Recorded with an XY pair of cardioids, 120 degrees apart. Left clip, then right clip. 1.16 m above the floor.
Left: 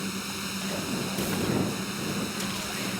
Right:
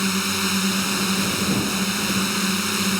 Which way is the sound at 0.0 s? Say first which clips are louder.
Right 11 dB; 55° right.